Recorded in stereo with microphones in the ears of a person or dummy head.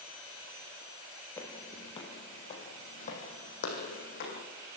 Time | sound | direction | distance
1.4 | footsteps | 15° left (ahead or behind) | 2 m